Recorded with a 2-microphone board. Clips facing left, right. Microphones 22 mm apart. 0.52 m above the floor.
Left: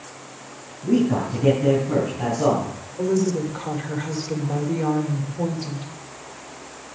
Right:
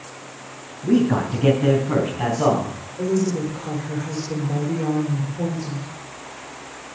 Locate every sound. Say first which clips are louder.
0.8 s a man speaking: right 2 dB; 70° right (ahead or behind), 3.5 m; by 2.7 s 80° right, 4 m
3.0 s a woman speaking: even; 55° left (ahead or behind), 2.0 m